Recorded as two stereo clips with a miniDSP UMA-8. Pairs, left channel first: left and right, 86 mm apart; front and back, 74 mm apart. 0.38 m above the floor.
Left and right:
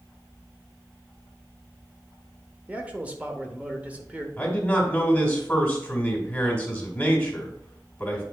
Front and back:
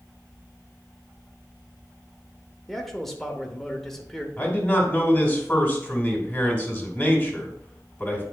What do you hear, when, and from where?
2.7 s a man speaking: 75° right, 0.9 m
4.4 s a man speaking: 40° left, 1.5 m